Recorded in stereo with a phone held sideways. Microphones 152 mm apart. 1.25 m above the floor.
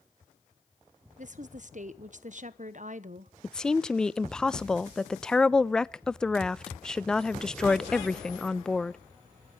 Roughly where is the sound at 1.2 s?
Right.